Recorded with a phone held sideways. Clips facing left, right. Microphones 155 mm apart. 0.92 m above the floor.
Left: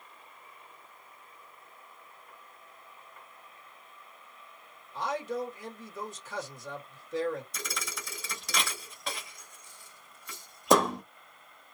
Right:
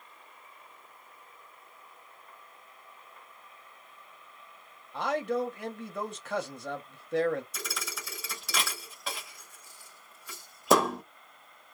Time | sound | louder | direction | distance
4.9 | a man speaking | right 4 dB | 75° right (ahead or behind) | 1.3 m
7.5 | a thud | even | centre (ahead or behind) | 0.8 m